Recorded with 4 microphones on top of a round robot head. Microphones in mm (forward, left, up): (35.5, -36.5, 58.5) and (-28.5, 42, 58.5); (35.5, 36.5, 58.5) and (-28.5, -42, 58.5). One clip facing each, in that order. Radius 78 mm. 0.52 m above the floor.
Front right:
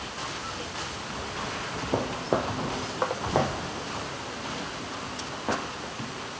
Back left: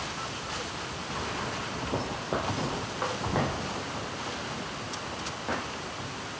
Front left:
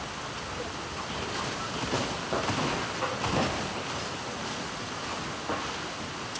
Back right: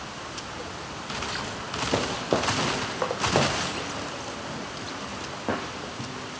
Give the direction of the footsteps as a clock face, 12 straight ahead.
3 o'clock.